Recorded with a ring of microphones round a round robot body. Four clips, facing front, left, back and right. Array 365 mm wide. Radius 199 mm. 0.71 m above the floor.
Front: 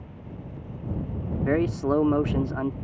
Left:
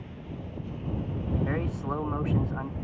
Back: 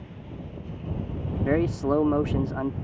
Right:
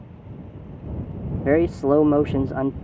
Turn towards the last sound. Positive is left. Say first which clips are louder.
# right 13 dB, even
turn(degrees=-85)